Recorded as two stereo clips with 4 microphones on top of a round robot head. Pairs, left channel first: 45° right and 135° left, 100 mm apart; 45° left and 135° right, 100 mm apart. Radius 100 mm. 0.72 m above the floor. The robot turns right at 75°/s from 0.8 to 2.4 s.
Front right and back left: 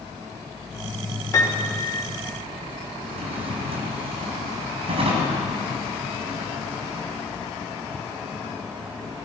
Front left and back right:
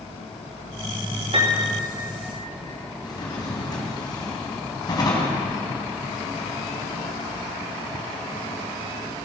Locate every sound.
1.3 s a piano: 105° right, 3 m; by 1.9 s 65° right, 3 m
3.0 s a drawer: 100° left, 3 m